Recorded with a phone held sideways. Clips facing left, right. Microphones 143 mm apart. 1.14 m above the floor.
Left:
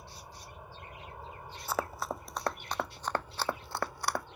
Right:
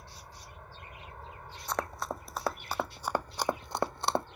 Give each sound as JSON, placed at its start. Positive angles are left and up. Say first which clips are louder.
{"t": 0.0, "sound": "an aircraft", "louder": "left 1 dB", "side_deg": 10}
{"t": 1.7, "sound": "running footsteps", "louder": "even", "side_deg": 5}